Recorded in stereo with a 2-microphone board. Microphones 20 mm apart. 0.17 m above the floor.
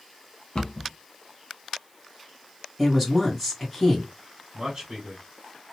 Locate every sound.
0.6 s a cupboard door: 50° left (ahead or behind), 0.7 m
2.8 s a woman speaking: 5° left (ahead or behind), 1.5 m
4.5 s a man speaking: 35° right (ahead or behind), 1.8 m